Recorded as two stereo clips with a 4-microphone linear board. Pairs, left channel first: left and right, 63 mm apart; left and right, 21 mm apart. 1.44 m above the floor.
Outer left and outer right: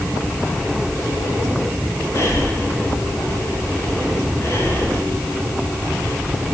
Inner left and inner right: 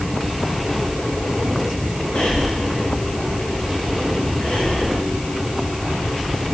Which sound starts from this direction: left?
Breathing, at 2.1 s.